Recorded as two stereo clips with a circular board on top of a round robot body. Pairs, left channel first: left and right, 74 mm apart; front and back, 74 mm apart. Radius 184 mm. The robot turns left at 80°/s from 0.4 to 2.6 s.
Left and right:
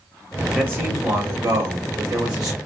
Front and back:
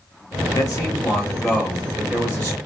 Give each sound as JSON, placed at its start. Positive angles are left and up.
{"t": 0.6, "sound": "a man speaking", "azimuth_deg": -15, "distance_m": 1.2}